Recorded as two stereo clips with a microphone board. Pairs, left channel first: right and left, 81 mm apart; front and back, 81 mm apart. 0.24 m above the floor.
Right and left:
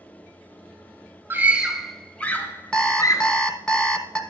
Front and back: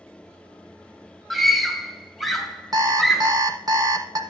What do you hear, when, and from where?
1.3 s a scream: 90° left, 1.4 m; by 3.3 s 90° right, 2.0 m
2.7 s an alarm clock: 170° right, 1.2 m